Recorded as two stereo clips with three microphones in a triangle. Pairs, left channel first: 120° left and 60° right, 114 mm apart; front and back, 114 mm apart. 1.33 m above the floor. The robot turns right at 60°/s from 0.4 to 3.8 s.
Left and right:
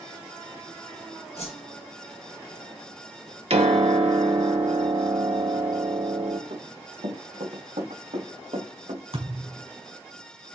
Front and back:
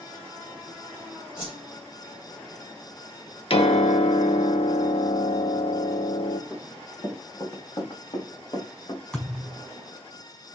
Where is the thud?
80° right, 6.5 m.